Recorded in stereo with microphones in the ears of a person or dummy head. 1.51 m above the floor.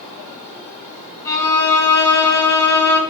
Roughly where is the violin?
Left.